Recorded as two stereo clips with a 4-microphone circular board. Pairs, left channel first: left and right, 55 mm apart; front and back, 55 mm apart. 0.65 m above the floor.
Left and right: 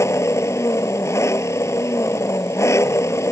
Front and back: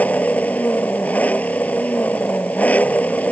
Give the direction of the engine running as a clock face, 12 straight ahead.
10 o'clock.